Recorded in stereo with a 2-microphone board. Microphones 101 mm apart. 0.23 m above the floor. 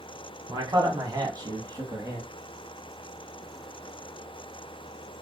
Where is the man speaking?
45° right (ahead or behind), 1.5 m; by 2.3 s 30° right (ahead or behind), 1.7 m.